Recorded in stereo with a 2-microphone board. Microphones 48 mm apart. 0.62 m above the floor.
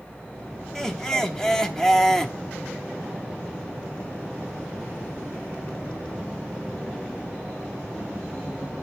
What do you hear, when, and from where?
0.8 s laughter: 10° left (ahead or behind), 1.0 m